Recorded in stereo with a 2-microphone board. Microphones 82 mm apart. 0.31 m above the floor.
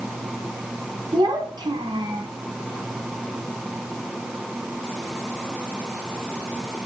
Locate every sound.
1.1 s a child speaking: 70° right (ahead or behind), 1.9 m